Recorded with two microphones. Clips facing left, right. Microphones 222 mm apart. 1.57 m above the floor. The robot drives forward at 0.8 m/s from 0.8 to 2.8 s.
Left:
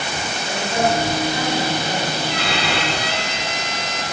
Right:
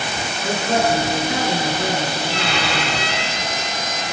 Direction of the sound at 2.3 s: 55° left (ahead or behind).